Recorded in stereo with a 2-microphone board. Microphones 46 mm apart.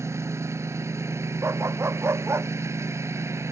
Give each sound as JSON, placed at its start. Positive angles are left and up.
{"t": 0.0, "sound": "a lawn mower", "side_deg": -75}
{"t": 1.4, "sound": "a dog barking", "side_deg": -60}